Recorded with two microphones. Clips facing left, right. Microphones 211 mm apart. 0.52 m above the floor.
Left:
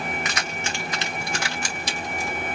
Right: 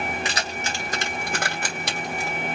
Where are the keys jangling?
30° right (ahead or behind), 1.8 m; by 2.4 s 70° right (ahead or behind), 1.9 m.